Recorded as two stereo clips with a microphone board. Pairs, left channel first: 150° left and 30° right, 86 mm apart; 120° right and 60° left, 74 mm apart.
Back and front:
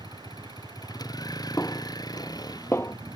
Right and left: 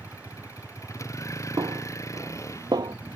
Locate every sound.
0.0 s a vehicle: 170° right
1.6 s a snare drum: 90° left